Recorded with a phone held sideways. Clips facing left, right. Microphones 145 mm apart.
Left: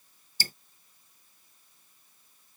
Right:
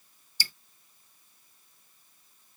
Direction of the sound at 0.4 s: 45° left (ahead or behind).